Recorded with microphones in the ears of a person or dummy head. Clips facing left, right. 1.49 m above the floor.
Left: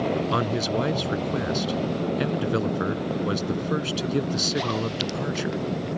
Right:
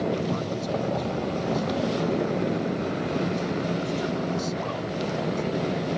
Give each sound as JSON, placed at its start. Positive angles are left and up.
{"t": 0.3, "sound": "a man speaking", "side_deg": 80}